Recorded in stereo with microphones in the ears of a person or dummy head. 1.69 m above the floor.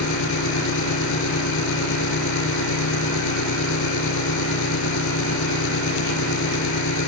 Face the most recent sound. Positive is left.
turn(degrees=80)